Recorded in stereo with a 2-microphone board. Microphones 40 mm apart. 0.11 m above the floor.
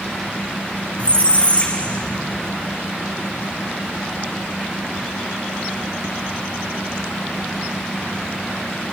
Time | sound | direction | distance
1.0 | a squeak | 30° left (ahead or behind) | 2.0 m